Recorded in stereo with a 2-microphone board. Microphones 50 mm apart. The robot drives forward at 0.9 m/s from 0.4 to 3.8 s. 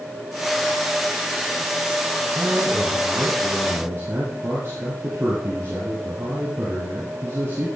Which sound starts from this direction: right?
A man speaking, at 2.4 s.